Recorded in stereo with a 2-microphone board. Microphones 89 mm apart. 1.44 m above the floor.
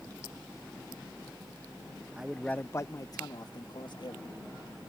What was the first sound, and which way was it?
A man speaking, 10° right (ahead or behind).